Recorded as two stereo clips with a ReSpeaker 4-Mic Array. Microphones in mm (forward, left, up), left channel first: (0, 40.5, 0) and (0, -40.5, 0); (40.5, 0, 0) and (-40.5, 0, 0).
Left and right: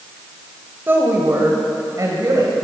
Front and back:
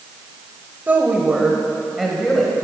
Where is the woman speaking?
130° right, 1.4 m; by 2.5 s 85° right, 1.7 m.